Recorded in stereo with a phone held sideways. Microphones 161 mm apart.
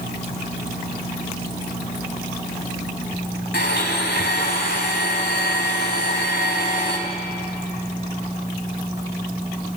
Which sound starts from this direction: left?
A blender, at 3.5 s.